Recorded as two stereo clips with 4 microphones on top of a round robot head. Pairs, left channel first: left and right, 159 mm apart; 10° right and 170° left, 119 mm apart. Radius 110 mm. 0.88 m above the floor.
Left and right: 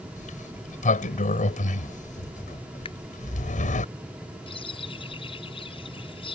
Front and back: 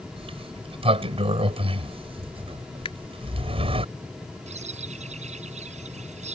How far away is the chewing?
I don't hear chewing.